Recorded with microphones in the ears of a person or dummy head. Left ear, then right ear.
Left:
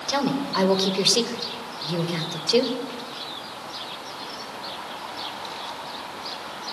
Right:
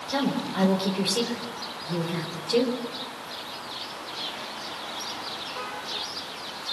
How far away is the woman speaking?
About 5 m.